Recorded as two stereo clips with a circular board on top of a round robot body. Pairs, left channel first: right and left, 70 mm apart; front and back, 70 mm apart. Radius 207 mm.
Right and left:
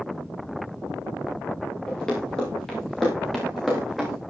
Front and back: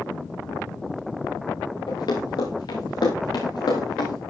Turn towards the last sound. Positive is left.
turn(degrees=0)